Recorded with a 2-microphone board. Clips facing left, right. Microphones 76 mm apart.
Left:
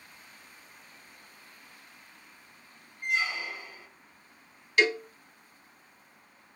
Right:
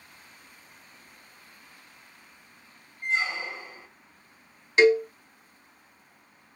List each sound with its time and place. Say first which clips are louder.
3.0 s a squeak: right 2 dB; 25° right (ahead or behind), 0.6 m
4.8 s a cowbell: right 7 dB; 25° right (ahead or behind), 0.6 m